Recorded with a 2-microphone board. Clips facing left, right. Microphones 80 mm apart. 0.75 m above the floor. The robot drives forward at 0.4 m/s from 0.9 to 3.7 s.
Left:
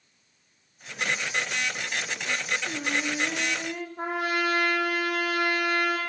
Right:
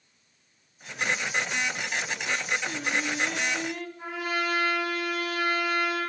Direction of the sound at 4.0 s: 60° left (ahead or behind).